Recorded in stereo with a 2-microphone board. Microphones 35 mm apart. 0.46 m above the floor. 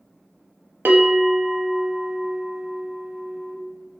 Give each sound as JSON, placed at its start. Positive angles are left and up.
{"t": 0.8, "sound": "a bell", "side_deg": -75, "distance_m": 0.6}